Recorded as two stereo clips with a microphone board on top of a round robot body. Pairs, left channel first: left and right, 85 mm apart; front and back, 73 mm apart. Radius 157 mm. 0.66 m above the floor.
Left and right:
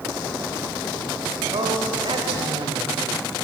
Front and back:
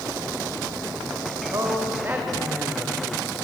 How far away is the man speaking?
About 3 m.